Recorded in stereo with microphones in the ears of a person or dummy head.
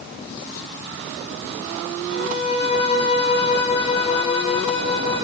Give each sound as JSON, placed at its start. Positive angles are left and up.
{"t": 2.1, "sound": "a violin", "side_deg": 30, "distance_m": 9.5}